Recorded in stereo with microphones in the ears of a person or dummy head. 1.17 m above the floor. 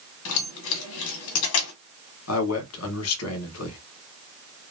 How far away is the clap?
No clap in this recording.